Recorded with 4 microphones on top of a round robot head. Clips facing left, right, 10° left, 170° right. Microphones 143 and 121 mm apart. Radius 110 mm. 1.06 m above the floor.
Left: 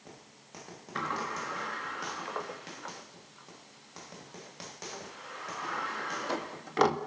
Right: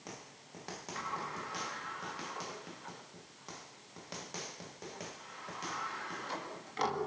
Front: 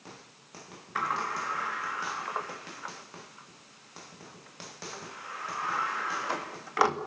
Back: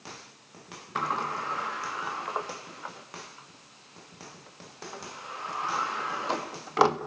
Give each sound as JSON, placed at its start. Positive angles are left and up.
{"t": 0.9, "sound": "a sliding door", "azimuth_deg": 125, "distance_m": 1.6}